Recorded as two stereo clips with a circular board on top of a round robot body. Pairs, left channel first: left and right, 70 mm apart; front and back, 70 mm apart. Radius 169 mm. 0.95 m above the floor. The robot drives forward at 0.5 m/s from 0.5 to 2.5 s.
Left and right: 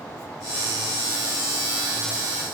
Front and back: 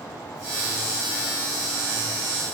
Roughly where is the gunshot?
No gunshot in this recording.